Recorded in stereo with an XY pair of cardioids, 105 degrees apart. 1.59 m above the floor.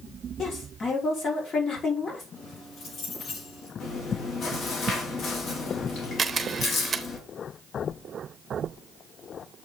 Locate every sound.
0.4 s a woman speaking: 45° left, 4.5 m
2.4 s keys jangling: 70° left, 6 m
3.8 s chewing: 50° left, 2.5 m
6.2 s a camera shutter: 35° right, 1.0 m